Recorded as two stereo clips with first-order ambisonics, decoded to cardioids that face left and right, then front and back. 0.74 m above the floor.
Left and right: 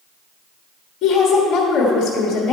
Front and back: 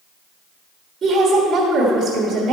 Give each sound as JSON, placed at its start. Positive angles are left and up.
{"t": 1.0, "sound": "a woman speaking", "azimuth_deg": 120, "distance_m": 1.4}